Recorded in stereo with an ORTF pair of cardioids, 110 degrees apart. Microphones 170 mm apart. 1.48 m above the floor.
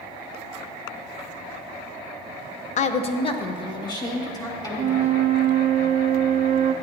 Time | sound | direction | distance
2.8 | a woman speaking | 45° left | 0.7 m
4.8 | a flute | 50° right | 0.5 m